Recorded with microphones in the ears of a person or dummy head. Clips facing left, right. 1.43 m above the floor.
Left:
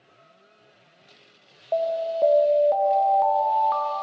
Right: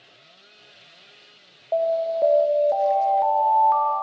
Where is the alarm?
Centre (ahead or behind), 0.6 m.